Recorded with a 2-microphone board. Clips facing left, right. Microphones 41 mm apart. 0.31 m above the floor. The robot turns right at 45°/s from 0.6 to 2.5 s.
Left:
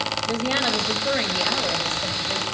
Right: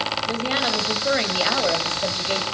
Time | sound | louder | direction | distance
0.3 | a woman speaking | left 2 dB | straight behind | 1.8 m